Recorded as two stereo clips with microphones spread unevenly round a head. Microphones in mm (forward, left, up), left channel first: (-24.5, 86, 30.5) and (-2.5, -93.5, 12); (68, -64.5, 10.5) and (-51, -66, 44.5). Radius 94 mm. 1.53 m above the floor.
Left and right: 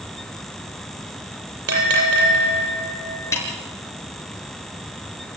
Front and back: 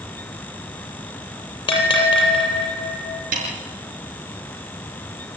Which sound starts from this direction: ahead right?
A bell, at 1.7 s.